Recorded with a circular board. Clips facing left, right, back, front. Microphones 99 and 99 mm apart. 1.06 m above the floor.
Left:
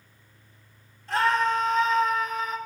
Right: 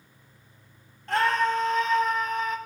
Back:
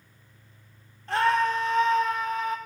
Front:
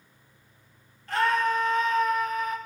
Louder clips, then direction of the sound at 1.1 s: Even, back 1 dB; 120° right.